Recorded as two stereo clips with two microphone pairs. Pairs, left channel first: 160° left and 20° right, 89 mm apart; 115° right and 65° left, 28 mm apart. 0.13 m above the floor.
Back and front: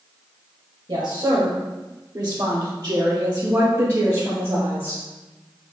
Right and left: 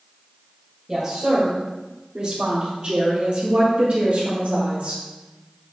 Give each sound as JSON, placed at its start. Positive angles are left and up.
{"t": 0.9, "sound": "a woman speaking", "azimuth_deg": -5, "distance_m": 3.0}